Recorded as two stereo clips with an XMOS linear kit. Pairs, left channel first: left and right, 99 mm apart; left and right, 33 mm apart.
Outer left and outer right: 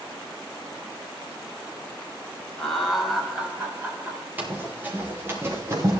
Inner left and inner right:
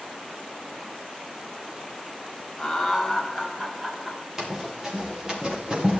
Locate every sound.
2.6 s laughter: 10° left (ahead or behind), 2 m; by 4.3 s 30° right (ahead or behind), 2.5 m
4.4 s running footsteps: 20° right (ahead or behind), 4 m; by 6.0 s 35° right (ahead or behind), 3 m